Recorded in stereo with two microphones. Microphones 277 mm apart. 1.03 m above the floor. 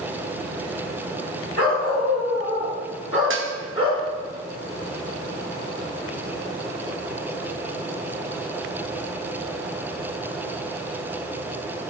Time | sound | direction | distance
1.6 | a dog barking | 70° left (ahead or behind) | 2 m
3.3 | dishes clattering | 50° right (ahead or behind) | 0.7 m